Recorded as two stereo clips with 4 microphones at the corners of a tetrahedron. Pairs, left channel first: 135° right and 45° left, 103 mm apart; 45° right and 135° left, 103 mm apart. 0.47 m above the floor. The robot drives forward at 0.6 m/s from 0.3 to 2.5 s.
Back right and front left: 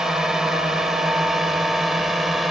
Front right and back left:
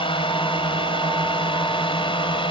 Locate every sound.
0.0 s a drone: 40° right; by 2.5 s 45° right